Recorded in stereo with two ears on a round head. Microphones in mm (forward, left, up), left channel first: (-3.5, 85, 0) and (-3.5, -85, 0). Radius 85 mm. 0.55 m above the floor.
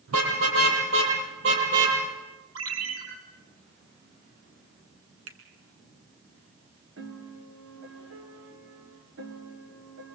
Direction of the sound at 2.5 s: 80° right.